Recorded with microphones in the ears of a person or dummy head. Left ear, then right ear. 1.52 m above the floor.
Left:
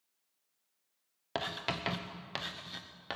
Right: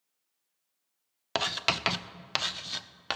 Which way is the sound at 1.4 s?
40° right (ahead or behind).